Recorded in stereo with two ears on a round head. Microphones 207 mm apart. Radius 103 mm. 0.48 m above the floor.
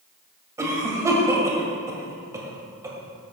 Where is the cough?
15° right (ahead or behind), 2 m.